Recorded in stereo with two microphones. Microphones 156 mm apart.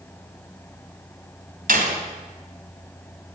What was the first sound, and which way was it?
A door slam, 75° right (ahead or behind).